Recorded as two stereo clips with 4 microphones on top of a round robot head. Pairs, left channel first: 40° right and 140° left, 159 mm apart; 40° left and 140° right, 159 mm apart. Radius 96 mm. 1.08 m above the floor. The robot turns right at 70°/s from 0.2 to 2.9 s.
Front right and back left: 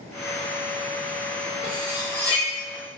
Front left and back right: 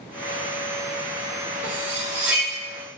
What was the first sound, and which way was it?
Cutlery clinking, 155° right.